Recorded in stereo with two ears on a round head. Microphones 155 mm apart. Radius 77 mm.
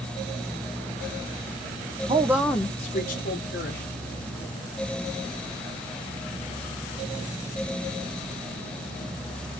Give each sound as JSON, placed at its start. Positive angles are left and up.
{"t": 2.1, "sound": "a woman speaking", "side_deg": -30, "distance_m": 0.6}